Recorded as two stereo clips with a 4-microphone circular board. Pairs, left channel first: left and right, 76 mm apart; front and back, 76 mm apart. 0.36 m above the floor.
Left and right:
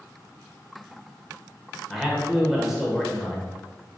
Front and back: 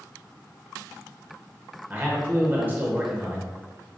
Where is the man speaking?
170° right, 0.9 m.